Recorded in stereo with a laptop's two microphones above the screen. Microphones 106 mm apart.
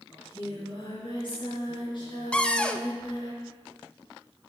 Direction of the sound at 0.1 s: 50° left (ahead or behind).